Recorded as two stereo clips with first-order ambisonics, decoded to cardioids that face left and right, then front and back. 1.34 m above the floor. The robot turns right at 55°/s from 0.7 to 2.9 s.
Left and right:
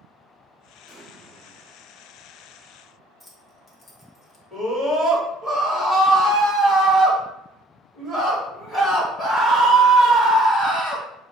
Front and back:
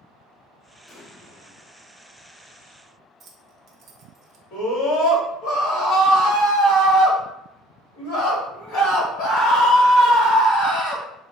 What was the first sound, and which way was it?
An explosion, 60° right.